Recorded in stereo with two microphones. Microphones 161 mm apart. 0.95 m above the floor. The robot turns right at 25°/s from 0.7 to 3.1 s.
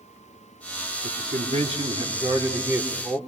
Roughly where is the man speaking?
Ahead right.